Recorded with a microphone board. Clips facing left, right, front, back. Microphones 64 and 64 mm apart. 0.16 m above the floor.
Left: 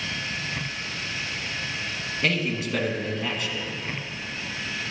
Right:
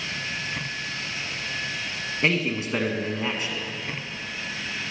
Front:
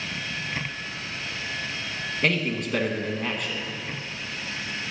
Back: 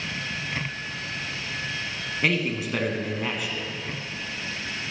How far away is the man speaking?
About 1.2 m.